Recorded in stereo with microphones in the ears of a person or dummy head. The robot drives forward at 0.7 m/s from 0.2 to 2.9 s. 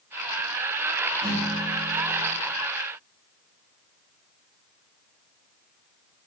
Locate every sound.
1.2 s a guitar: 15° right (ahead or behind), 7 m